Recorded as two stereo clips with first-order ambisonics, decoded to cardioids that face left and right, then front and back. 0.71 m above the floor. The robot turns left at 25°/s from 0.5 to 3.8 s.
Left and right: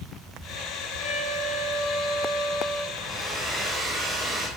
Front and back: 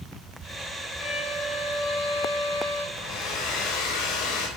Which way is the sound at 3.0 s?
10° left.